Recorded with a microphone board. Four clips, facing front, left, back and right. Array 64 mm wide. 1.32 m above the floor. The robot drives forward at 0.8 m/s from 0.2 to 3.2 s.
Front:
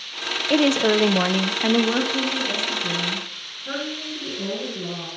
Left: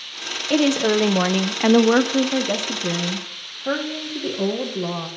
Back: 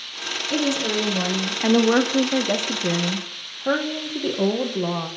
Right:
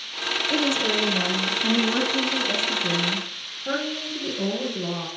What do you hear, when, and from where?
0.5 s a woman speaking: 30° left, 1.1 m; by 5.1 s 155° left, 1.4 m